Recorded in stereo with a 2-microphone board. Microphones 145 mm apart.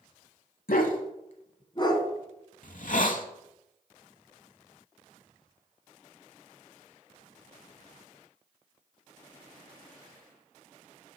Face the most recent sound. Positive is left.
turn(degrees=65)  # may be behind; listen again after turning